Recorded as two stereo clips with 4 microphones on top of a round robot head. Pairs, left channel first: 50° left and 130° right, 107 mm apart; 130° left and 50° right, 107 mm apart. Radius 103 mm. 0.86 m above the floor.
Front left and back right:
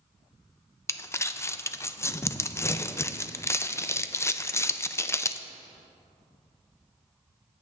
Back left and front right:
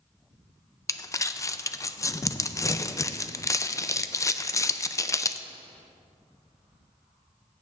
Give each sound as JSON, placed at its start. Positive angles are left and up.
{"t": 0.9, "sound": "crumpling", "azimuth_deg": 95, "distance_m": 0.5}